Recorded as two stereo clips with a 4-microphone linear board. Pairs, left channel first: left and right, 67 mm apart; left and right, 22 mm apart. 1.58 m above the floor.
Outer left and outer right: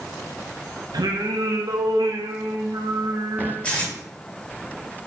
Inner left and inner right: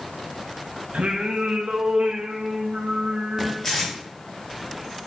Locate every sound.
0.9 s singing: 80° right, 0.6 m
3.6 s tape being pulled: 20° left (ahead or behind), 1.3 m